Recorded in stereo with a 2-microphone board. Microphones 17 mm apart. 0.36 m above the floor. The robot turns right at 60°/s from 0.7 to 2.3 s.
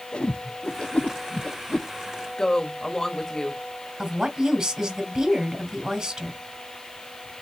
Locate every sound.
0.1 s a whoosh: 75° left (ahead or behind), 0.5 m; by 1.9 s 35° left (ahead or behind), 0.5 m
2.4 s a woman speaking: 30° left (ahead or behind), 1.7 m
4.0 s a woman speaking: 40° right (ahead or behind), 2.5 m